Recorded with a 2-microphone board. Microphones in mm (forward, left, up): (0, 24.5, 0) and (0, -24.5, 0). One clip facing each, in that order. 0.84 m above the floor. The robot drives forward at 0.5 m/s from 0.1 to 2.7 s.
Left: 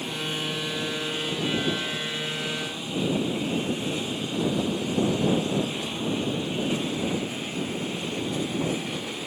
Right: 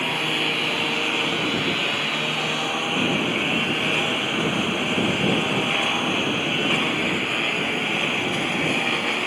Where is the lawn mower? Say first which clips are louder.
Right 7 dB; 60° right (ahead or behind); by 9.3 s 65° right (ahead or behind).